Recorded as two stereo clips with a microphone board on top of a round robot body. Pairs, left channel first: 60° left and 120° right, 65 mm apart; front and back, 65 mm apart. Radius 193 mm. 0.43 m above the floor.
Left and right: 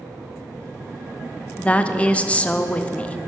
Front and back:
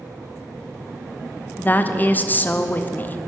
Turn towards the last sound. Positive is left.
turn(degrees=15)